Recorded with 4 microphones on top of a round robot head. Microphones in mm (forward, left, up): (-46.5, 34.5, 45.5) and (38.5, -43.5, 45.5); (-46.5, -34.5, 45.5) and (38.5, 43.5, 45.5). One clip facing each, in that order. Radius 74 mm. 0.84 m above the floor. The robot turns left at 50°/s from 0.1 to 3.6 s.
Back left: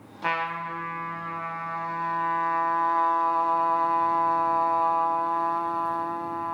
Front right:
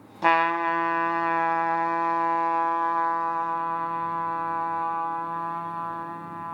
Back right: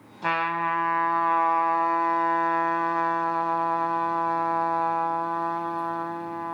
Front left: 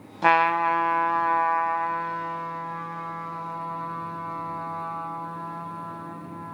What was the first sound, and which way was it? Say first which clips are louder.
A trumpet: front right 8 dB, front left 6 dB; 5° left.